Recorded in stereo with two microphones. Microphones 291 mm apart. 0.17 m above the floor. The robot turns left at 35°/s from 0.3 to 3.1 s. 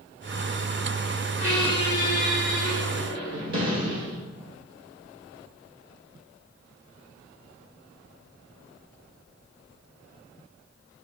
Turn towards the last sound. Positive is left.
turn(degrees=-70)